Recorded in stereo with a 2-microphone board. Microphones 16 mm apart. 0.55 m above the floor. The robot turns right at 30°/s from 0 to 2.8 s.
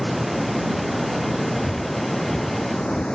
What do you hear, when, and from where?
0.0 s running water: 20° right; by 3.1 s 65° left
1.6 s breathing: 20° left (ahead or behind); by 3.0 s 15° right (ahead or behind)